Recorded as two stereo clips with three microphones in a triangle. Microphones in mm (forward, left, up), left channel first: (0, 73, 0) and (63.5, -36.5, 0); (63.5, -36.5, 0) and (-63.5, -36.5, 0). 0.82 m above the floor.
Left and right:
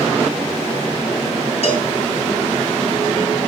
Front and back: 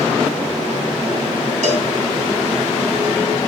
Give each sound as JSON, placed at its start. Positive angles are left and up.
{"t": 1.6, "sound": "a cowbell", "azimuth_deg": 160, "distance_m": 3.5}